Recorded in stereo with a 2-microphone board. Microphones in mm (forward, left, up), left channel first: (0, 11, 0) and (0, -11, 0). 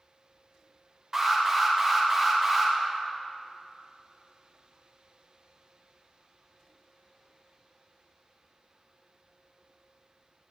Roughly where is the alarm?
Centre.